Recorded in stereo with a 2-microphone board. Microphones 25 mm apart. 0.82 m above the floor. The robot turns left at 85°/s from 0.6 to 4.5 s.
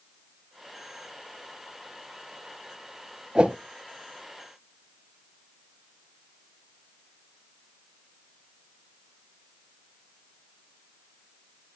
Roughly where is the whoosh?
Right.